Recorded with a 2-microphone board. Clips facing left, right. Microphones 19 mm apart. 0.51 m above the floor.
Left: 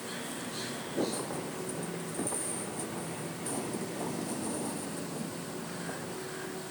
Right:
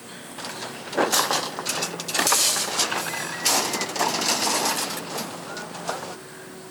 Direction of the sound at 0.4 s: 85° right.